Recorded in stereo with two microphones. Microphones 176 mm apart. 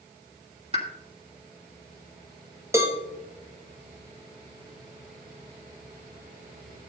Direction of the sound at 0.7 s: 35° right (ahead or behind).